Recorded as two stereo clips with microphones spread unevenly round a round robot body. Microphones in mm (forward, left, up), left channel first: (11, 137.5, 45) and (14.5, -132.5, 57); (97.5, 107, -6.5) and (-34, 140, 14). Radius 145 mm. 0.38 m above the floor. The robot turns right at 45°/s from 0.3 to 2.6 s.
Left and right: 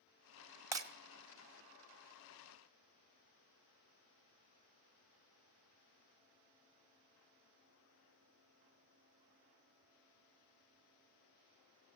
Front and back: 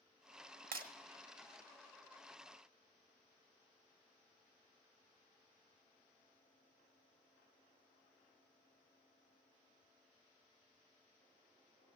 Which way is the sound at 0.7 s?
170° right.